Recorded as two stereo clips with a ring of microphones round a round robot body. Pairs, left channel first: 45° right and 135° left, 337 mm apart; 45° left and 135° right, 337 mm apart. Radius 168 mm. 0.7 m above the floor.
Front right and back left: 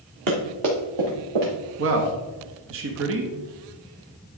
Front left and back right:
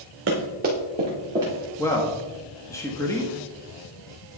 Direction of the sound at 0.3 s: 170° left.